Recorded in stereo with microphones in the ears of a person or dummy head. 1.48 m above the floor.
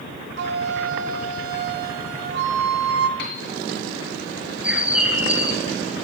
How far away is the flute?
About 1.0 m.